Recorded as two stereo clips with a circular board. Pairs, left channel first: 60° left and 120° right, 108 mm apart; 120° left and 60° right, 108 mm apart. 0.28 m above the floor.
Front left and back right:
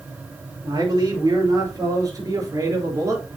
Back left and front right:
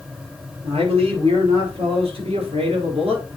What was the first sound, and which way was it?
A man speaking, 70° right.